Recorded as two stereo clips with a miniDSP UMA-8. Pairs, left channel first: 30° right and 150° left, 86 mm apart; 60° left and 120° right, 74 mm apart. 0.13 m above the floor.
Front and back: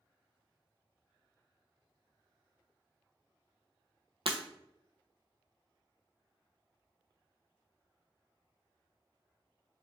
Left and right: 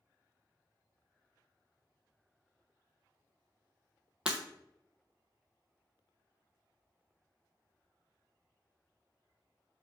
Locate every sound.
4.2 s breaking glass: 160° left, 0.6 m